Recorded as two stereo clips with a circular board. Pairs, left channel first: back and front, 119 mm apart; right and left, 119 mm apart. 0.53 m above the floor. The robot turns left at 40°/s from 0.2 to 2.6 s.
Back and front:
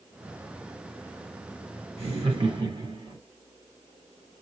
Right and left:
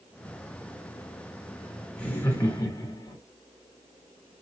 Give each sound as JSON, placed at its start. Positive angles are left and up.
{"t": 2.0, "sound": "laughter", "azimuth_deg": -10, "distance_m": 1.2}